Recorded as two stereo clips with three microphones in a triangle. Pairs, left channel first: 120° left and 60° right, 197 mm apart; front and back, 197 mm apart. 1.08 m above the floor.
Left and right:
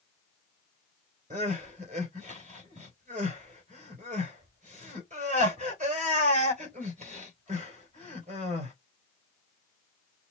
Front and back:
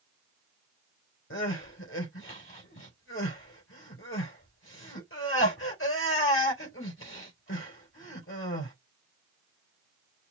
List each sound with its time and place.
1.3 s crying: 5° right, 2.5 m